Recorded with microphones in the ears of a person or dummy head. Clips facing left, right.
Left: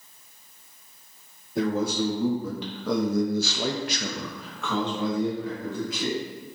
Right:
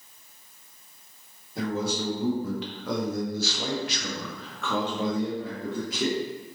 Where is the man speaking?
70° left (ahead or behind), 1.9 m; by 6.2 s 30° right (ahead or behind), 1.7 m.